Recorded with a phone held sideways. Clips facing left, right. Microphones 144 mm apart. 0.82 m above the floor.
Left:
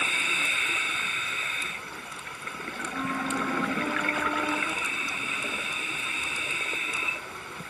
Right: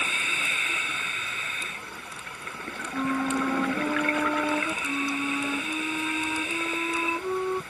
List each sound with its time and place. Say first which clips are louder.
2.9 s a flute: right 5 dB; 25° right (ahead or behind)
4.8 s a flute: right 9 dB; 80° right